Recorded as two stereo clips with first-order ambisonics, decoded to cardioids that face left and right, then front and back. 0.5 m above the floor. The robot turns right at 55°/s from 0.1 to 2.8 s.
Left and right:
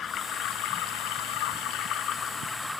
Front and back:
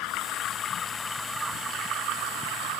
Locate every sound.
0.0 s running water: 30° left; by 2.8 s straight behind